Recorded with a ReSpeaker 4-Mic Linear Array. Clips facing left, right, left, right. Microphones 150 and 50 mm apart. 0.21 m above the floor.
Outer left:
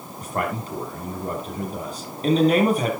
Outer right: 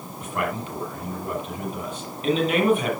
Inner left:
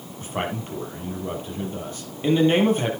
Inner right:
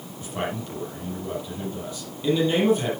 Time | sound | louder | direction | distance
0.2 | a man speaking | outer left 1 dB, inner left 1 dB | 40° left (ahead or behind) | 7 m